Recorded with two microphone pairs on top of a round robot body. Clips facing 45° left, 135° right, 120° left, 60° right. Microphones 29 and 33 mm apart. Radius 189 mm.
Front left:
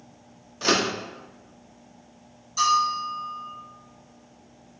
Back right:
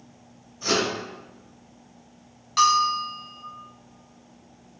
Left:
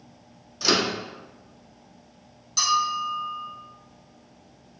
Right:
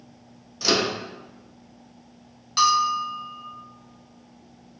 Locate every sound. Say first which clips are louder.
0.6 s a microwave: front left 1 dB, even; 35° left, 0.6 m
2.6 s a bell: back right 2 dB, right 3 dB; 115° right, 0.6 m